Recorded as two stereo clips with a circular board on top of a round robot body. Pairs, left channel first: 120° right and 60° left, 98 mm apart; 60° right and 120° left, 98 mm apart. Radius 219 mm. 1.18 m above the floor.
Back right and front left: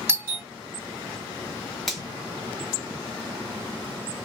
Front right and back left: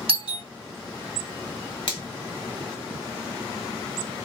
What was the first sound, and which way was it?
A doorbell, 125° left.